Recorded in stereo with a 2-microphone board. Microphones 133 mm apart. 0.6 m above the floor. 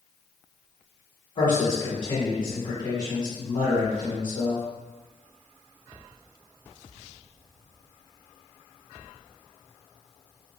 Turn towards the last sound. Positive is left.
turn(degrees=40)  # may be behind; listen again after turning